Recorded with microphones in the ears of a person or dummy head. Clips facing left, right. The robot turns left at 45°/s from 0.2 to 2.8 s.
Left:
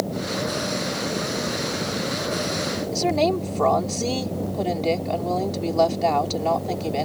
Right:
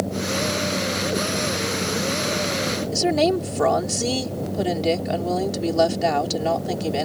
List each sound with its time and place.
2.9 s a woman speaking: 15° right (ahead or behind)